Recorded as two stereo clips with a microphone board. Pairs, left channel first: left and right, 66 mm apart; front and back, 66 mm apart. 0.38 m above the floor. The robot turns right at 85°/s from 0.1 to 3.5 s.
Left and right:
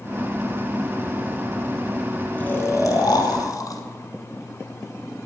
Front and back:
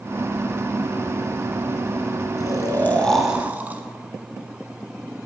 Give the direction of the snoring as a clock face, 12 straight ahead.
11 o'clock.